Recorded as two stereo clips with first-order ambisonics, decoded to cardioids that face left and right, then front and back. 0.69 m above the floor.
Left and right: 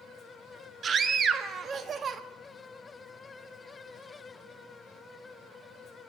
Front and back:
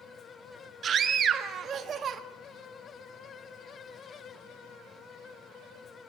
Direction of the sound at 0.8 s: 140° right.